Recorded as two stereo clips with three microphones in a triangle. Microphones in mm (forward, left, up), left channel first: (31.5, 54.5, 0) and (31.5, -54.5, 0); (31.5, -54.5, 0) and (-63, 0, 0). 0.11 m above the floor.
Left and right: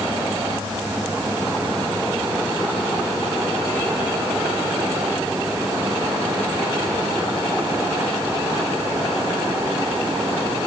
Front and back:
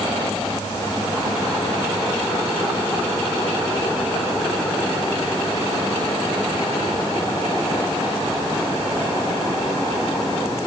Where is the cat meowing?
I don't hear a cat meowing.